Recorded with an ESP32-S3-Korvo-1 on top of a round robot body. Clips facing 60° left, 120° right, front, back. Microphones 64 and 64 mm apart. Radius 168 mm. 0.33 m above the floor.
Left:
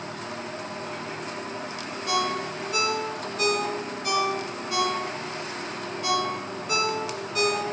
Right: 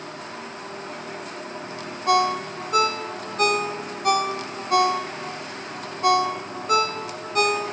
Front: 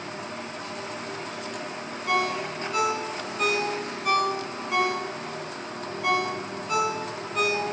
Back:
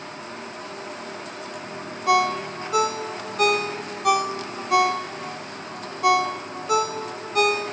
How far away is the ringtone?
About 0.9 m.